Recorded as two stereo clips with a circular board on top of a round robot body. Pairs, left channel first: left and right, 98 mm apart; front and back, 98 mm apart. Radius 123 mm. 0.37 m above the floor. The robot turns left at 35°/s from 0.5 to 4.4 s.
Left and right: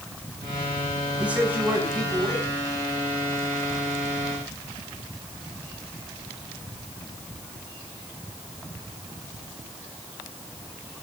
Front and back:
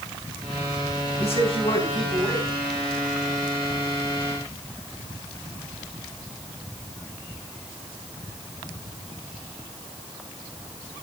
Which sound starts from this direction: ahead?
A man speaking, at 1.2 s.